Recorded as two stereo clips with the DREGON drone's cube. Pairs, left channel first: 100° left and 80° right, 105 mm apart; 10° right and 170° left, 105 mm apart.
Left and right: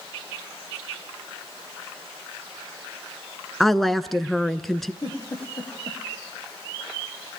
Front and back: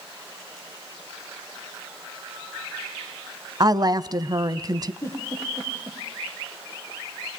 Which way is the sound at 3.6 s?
170° right.